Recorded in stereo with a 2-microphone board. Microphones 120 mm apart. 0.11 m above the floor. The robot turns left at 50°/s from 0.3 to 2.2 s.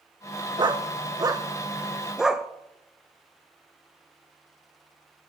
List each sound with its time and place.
0.6 s a dog barking: 40° right (ahead or behind), 0.5 m; by 2.5 s 5° right (ahead or behind), 0.5 m